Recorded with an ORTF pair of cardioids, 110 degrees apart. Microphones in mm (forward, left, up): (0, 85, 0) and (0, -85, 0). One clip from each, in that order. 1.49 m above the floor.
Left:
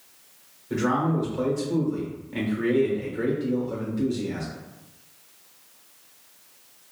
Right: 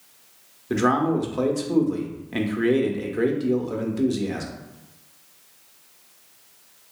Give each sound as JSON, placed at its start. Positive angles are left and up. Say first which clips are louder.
{"t": 0.7, "sound": "a man speaking", "louder": "right 4 dB", "azimuth_deg": -55, "distance_m": 0.8}